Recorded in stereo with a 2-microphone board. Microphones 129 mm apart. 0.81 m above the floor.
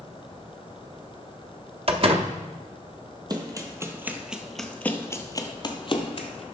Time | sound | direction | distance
1.9 | a door slam | 50° right (ahead or behind) | 0.6 m
3.3 | running footsteps | 30° right (ahead or behind) | 1.1 m